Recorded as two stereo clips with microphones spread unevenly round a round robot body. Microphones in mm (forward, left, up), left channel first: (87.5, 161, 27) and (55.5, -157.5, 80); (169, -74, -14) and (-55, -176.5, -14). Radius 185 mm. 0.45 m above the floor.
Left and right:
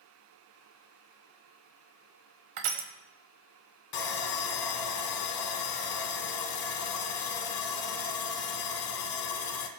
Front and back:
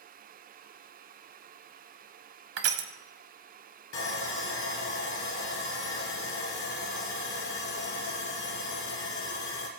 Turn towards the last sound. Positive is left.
turn(degrees=70)